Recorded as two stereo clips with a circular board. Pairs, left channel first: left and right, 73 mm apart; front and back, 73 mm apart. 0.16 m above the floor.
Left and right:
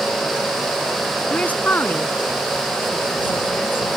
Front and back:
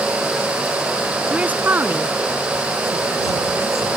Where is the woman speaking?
130° left; by 3.9 s 150° left.